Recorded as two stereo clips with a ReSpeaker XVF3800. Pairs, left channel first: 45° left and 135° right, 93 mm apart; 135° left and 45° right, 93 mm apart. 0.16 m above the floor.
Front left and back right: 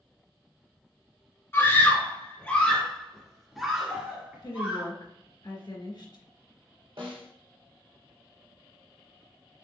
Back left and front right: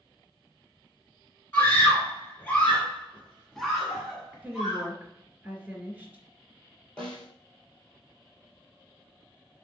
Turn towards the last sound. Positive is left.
turn(degrees=-145)